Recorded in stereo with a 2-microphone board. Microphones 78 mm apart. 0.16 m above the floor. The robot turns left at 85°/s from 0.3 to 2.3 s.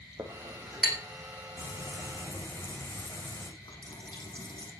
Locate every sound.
0.2 s a clink: 50° right (ahead or behind), 4.5 m; by 1.0 s 5° left (ahead or behind), 4.5 m
1.6 s frying: 95° left, 8 m; by 3.5 s 35° left, 8 m
3.6 s a running tap: 80° left, 6 m